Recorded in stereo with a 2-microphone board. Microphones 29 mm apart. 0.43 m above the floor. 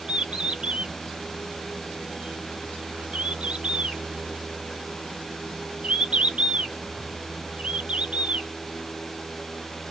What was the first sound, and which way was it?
A bird, 40° right (ahead or behind).